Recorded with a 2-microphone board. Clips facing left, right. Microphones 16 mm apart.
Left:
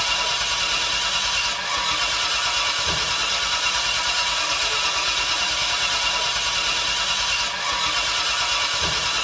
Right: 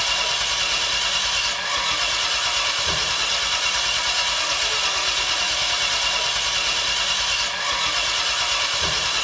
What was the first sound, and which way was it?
An engine running, 10° right (ahead or behind).